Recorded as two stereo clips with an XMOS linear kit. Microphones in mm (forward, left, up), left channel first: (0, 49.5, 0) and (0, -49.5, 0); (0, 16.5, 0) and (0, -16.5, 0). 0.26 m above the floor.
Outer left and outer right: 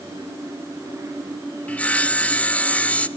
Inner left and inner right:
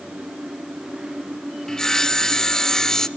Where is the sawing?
15° left (ahead or behind), 0.7 m.